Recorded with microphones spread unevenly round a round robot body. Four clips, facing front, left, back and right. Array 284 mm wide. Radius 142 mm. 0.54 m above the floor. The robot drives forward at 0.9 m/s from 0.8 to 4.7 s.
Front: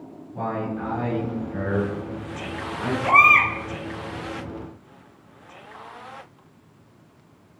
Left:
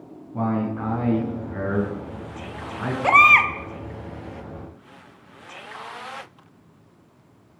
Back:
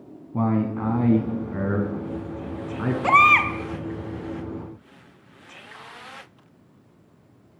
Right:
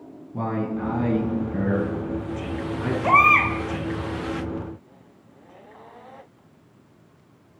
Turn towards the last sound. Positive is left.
turn(degrees=165)